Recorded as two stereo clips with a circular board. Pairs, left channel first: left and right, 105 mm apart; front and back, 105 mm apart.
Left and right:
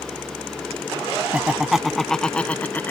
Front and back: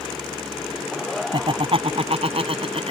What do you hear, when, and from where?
1.3 s laughter: 165° right; by 2.9 s 165° left